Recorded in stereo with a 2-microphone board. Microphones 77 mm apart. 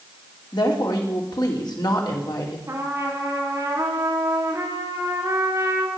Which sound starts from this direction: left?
A woman speaking, at 0.5 s.